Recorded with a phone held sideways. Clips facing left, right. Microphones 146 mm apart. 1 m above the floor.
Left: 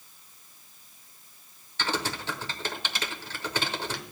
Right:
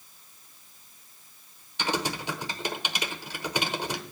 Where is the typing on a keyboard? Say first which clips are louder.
Right 2 dB; 15° right (ahead or behind), 1.1 m.